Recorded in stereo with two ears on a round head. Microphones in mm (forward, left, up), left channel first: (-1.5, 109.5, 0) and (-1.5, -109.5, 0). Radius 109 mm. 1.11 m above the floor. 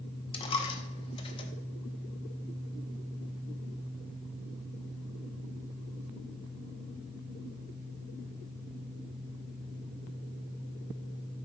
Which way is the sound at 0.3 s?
20° left (ahead or behind).